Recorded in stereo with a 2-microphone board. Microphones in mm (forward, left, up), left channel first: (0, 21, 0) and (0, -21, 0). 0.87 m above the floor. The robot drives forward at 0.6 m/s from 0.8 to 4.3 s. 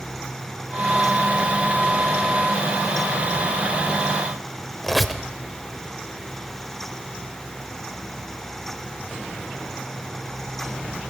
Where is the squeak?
Centre (ahead or behind), 0.7 m.